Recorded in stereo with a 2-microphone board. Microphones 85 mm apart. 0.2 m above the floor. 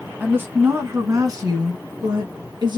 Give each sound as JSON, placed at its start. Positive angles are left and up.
{"t": 0.2, "sound": "a woman speaking", "side_deg": -15, "distance_m": 1.4}